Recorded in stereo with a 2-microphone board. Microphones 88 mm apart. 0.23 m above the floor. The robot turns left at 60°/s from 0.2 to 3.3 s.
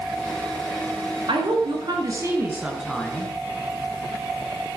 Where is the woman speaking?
85° right, 3 m; by 3.3 s 155° left, 3 m.